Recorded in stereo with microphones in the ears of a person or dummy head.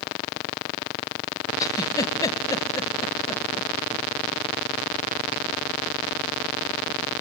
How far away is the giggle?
About 1.3 m.